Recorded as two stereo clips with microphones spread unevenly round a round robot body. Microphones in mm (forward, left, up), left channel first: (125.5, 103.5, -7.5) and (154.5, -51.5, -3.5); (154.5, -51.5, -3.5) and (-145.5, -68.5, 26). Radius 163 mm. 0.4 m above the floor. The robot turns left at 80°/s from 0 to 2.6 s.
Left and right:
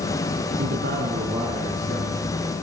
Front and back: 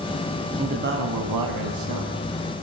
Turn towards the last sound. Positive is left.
turn(degrees=100)